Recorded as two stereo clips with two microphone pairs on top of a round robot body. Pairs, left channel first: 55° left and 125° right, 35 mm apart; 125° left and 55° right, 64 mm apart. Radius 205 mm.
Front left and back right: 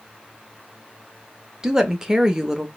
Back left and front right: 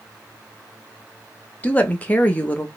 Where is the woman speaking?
Straight behind, 1.1 m.